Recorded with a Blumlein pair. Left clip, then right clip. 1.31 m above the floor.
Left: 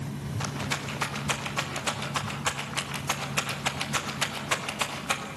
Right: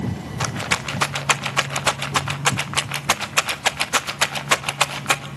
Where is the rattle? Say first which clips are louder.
Right 9 dB; 60° right, 1.4 m.